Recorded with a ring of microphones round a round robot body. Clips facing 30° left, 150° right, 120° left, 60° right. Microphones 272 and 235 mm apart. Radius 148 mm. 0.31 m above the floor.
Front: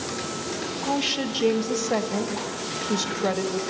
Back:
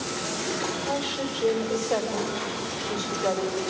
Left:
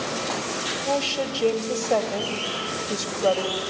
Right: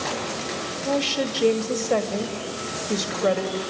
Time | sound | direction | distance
0.8 | a woman speaking | 5° left | 2 m